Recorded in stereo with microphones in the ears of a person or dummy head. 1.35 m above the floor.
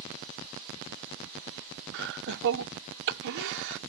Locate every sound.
1.9 s laughter: 70° right (ahead or behind)